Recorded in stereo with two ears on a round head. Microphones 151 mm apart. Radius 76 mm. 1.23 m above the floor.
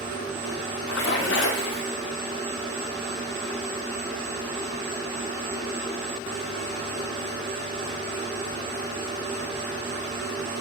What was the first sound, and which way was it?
A splash, 80° left.